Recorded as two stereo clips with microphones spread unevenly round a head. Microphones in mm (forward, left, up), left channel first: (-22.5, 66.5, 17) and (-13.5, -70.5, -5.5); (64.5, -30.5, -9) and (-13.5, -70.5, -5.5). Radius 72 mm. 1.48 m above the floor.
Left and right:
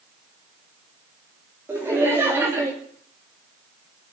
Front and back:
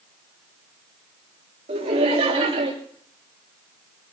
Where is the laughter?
165° right, 3.5 m; by 2.7 s 160° right, 3 m.